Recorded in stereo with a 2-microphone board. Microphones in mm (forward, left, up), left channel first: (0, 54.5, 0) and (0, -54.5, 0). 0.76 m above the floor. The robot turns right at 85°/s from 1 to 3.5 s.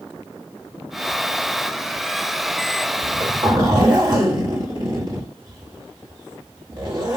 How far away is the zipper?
About 1.5 m.